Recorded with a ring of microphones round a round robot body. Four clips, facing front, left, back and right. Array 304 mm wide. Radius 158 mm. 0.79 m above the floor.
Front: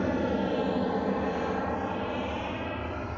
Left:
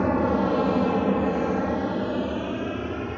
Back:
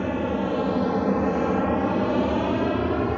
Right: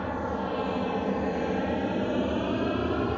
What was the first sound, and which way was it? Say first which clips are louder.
An aircraft: left 8 dB, back 3 dB; 100° left.